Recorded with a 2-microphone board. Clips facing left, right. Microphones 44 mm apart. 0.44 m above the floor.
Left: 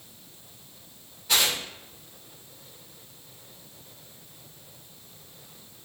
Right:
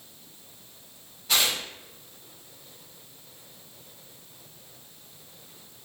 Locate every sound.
1.3 s tearing paper: 5° left (ahead or behind), 1.3 m